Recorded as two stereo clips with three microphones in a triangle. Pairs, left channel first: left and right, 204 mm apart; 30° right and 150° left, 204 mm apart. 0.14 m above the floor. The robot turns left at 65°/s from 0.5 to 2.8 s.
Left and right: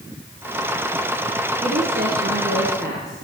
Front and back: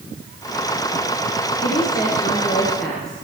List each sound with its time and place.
1.6 s a woman speaking: 40° right, 3 m; by 3.1 s 115° right, 3 m